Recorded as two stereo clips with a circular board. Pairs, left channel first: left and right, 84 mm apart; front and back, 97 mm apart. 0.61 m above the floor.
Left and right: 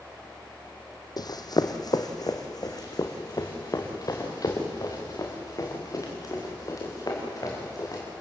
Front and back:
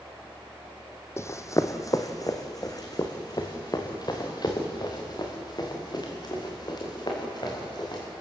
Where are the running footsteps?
60° left, 1.5 m; by 8.0 s 45° left, 7 m.